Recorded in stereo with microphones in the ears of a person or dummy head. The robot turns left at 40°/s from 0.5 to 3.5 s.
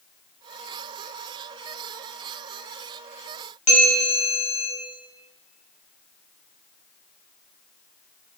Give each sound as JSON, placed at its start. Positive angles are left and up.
{"t": 3.7, "sound": "a bell", "side_deg": 40, "distance_m": 1.7}